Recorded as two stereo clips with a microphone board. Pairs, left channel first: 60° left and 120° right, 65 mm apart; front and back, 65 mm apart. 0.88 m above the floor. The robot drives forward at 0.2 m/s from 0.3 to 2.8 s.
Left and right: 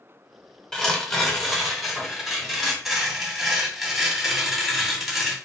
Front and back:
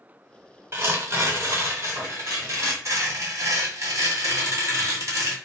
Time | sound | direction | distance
0.7 | tearing paper | 135° left | 1.0 m